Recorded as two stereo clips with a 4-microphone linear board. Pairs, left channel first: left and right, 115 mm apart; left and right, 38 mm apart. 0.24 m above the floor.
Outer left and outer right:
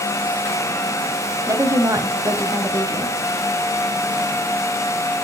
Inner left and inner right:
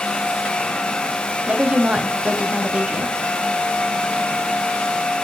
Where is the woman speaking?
30° right (ahead or behind), 1.4 m.